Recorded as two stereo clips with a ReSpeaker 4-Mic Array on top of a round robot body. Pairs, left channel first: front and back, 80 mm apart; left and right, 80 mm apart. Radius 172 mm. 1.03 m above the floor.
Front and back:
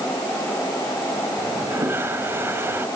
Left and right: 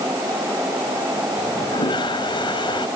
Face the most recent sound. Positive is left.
turn(degrees=115)